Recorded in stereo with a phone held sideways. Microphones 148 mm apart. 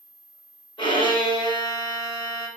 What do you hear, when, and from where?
0.8 s a violin: 30° left (ahead or behind), 0.9 m